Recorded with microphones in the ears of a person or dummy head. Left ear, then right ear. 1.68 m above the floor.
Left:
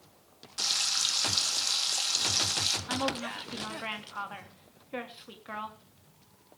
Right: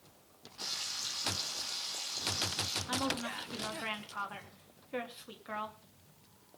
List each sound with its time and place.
0.6 s frying: 80° left, 2.5 m
2.9 s a woman speaking: centre (ahead or behind), 3 m